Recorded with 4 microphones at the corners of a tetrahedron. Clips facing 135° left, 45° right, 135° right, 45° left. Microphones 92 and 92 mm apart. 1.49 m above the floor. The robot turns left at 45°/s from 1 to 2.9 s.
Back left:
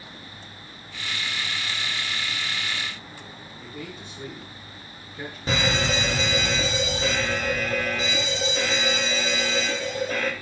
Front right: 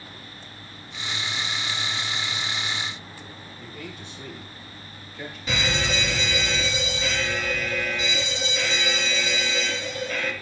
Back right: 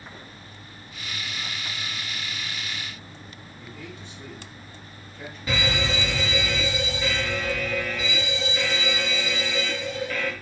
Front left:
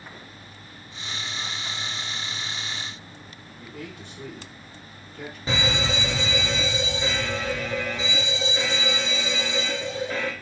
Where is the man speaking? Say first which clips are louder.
Back left 2 dB, front left 3 dB; 80° left, 5.5 m.